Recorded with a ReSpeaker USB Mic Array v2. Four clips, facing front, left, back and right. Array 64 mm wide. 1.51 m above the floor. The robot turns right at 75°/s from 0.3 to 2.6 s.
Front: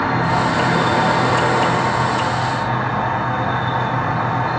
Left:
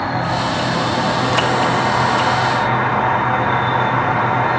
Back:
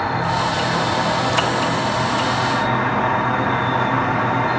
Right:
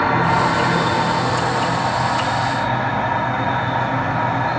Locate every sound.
0.0 s an insect: 55° right, 2.5 m; by 4.6 s 120° left, 2.5 m